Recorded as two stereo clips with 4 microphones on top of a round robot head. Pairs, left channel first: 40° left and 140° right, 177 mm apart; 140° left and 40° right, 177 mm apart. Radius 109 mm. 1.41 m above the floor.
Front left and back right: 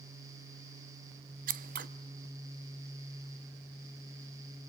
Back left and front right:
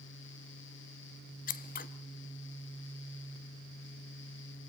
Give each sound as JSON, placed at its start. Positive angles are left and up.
{"t": 1.5, "sound": "scissors", "azimuth_deg": 180, "distance_m": 0.9}